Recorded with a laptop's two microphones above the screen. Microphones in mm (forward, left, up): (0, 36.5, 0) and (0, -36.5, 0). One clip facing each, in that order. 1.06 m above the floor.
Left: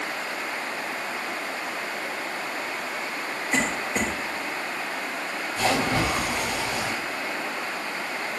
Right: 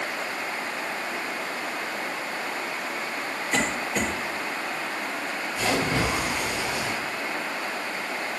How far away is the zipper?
No zipper in this recording.